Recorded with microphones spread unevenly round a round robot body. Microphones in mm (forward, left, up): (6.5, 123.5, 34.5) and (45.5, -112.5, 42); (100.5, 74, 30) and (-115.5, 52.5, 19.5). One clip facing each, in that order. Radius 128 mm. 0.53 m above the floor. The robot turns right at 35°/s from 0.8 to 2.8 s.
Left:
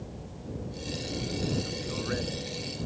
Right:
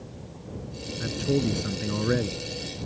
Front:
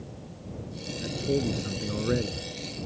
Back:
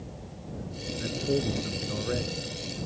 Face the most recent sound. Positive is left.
turn(degrees=-30)